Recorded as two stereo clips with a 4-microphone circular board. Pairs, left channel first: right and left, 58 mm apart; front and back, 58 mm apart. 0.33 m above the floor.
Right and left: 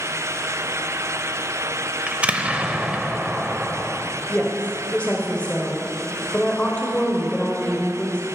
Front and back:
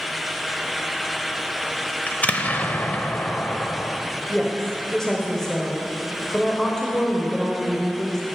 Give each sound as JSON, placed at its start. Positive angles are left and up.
{"t": 2.1, "sound": "an explosion", "azimuth_deg": 40, "distance_m": 0.6}
{"t": 4.3, "sound": "a woman speaking", "azimuth_deg": -70, "distance_m": 1.1}